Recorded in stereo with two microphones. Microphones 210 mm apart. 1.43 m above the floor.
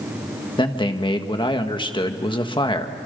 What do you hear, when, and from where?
0.6 s a man speaking: 25° left (ahead or behind), 1.7 m